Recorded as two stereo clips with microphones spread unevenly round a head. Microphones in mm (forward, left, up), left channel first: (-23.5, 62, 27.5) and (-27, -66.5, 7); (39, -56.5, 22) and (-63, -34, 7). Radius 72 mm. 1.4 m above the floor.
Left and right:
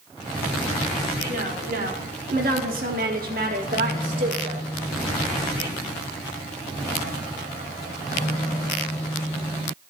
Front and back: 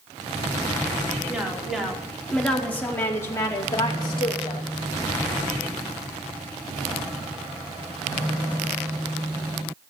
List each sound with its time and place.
1.3 s a woman speaking: 110° right, 5 m; by 4.6 s 50° right, 4.5 m